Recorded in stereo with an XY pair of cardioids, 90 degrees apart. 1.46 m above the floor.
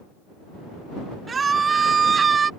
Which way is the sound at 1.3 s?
40° right.